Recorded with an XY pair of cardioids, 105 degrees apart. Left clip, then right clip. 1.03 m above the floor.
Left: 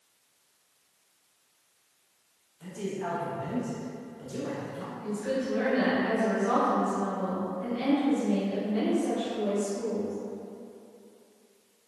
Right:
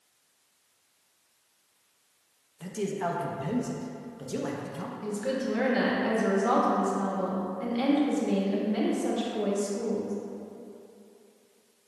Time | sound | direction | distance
2.6 | a man speaking | 60° right | 0.7 m
5.0 | a woman speaking | 65° right | 1.3 m